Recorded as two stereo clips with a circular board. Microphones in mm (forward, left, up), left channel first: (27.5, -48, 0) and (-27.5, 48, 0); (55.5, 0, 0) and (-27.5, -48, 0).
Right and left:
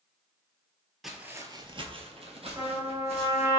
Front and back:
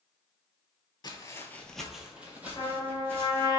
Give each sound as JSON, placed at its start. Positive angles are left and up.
{"t": 1.0, "sound": "footsteps", "azimuth_deg": 30, "distance_m": 0.5}
{"t": 2.6, "sound": "a trumpet", "azimuth_deg": 65, "distance_m": 1.3}